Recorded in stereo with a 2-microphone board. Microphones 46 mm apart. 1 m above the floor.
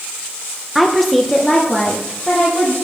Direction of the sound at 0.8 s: 5° right (ahead or behind).